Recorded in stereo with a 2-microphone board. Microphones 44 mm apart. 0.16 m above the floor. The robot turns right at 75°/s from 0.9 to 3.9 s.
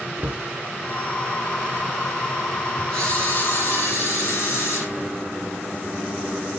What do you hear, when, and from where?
0.2 s a cupboard door: 55° right (ahead or behind), 0.8 m
2.9 s a camera shutter: 15° left, 6 m; by 4.9 s 90° left, 6 m